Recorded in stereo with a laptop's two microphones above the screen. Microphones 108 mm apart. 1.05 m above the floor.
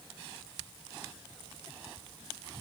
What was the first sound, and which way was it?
Only background noise.